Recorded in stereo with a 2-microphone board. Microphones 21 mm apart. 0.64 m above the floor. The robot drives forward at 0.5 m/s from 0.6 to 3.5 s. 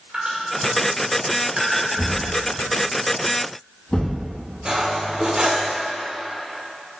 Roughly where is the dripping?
Right.